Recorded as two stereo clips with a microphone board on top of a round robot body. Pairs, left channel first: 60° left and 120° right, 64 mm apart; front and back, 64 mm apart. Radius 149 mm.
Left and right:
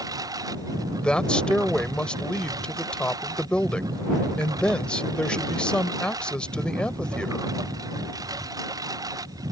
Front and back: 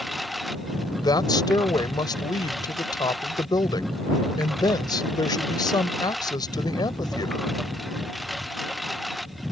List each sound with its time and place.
0.0 s a lawn mower: 90° right
1.0 s a woman speaking: 15° right